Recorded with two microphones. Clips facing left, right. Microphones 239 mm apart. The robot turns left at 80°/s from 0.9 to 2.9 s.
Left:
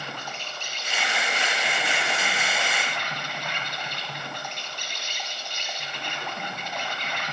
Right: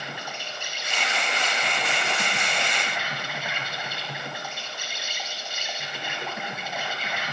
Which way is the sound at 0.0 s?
15° right.